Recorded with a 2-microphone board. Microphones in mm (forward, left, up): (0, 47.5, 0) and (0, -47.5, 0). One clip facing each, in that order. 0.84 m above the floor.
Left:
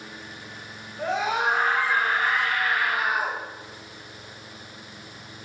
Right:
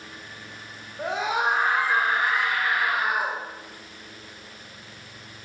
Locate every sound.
1.0 s a scream: 15° right (ahead or behind), 3.5 m